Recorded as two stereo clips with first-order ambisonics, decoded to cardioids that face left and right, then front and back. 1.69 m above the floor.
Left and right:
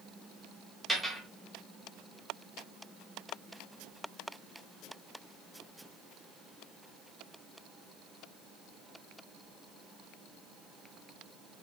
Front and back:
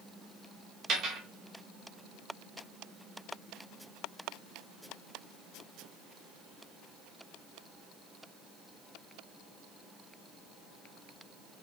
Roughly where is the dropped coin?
Behind.